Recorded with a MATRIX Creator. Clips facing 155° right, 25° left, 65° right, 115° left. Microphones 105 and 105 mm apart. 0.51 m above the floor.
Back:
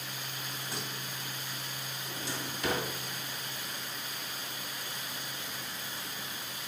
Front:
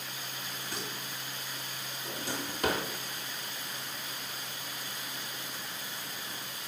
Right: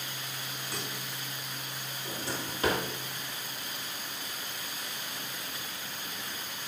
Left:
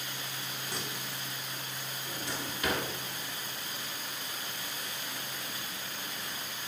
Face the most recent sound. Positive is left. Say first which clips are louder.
# front 3 dB, right 2 dB
turn(degrees=-15)